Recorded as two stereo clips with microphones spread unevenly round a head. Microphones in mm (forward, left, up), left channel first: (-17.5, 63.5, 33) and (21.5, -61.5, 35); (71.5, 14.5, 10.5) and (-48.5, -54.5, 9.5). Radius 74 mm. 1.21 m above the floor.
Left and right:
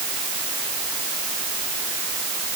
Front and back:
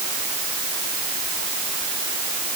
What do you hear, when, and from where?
Only background noise.